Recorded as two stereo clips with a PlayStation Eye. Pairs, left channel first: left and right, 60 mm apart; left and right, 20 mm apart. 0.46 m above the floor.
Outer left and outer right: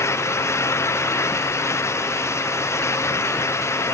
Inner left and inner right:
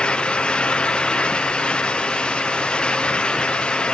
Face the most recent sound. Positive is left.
No sound to turn to.